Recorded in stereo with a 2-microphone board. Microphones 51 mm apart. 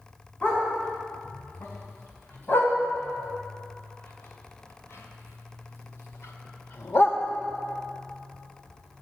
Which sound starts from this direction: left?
A dog barking, at 0.4 s.